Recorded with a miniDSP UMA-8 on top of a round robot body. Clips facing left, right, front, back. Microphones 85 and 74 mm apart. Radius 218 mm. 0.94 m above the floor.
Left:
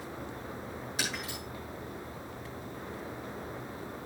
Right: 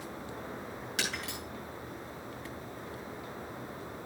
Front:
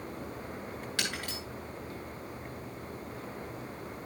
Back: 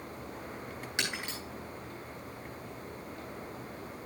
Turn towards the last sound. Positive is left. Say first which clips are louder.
# even, back 1 dB
turn(degrees=-105)